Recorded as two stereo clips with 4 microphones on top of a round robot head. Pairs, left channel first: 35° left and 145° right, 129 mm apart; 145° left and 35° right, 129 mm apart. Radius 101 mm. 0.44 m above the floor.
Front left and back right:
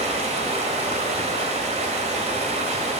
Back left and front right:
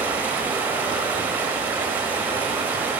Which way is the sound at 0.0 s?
110° right.